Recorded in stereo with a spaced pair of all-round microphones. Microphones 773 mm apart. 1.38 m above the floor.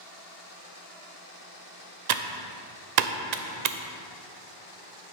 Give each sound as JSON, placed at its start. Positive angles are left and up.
{"t": 2.1, "sound": "typing on a keyboard", "side_deg": -65, "distance_m": 0.6}